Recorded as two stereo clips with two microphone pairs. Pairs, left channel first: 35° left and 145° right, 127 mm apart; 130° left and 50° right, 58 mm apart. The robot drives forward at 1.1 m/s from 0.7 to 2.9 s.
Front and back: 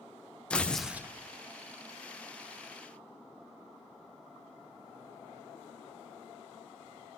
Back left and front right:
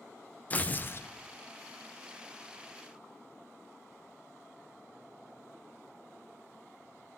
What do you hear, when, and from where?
0.5 s tearing paper: 105° left, 0.6 m; by 1.1 s 150° left, 0.8 m